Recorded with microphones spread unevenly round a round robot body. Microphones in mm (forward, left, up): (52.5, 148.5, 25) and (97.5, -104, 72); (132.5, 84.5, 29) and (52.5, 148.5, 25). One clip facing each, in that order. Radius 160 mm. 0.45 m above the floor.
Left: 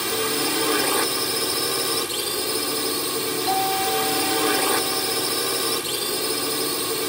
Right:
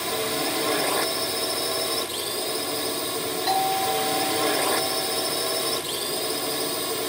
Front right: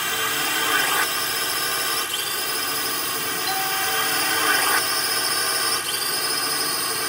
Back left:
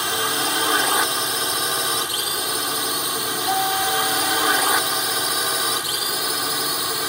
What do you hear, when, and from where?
0.0 s a drone: 105° left; by 7.1 s 75° left
3.5 s a doorbell: 145° right